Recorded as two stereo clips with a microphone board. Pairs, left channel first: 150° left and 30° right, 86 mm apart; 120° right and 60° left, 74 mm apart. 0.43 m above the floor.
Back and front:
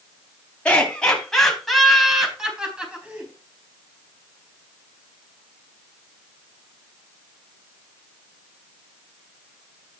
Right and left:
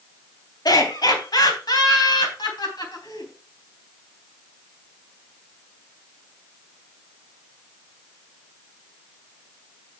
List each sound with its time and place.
0.7 s laughter: 135° right, 3.5 m; by 3.3 s 105° right, 4 m